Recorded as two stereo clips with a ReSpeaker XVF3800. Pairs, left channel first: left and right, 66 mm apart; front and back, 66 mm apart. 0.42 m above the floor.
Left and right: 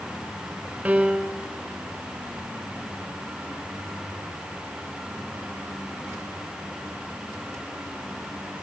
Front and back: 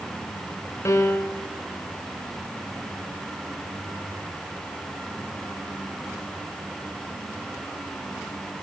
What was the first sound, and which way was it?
A piano, 30° right.